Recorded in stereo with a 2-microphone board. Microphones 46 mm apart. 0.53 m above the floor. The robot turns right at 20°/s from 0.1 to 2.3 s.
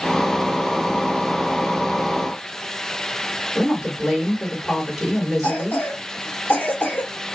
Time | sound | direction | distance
3.5 | a woman speaking | 5° right (ahead or behind) | 1.6 m
5.4 | a cough | 50° left (ahead or behind) | 1.2 m